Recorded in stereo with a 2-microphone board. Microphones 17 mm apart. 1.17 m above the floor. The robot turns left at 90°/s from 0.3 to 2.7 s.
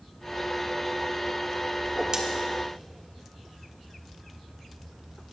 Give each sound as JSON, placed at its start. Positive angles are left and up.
{"t": 1.8, "sound": "a whoosh", "side_deg": -15, "distance_m": 1.1}